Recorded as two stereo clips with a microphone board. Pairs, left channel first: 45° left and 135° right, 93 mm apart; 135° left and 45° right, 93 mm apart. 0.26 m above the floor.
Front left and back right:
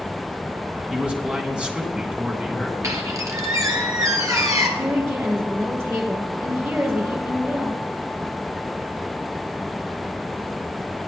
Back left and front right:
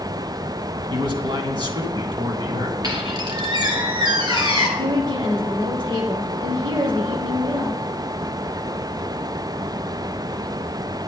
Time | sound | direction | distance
0.9 | a man speaking | 55° right | 3 m
2.8 | a squeak | 80° right | 3 m
4.8 | a woman speaking | 75° right | 4.5 m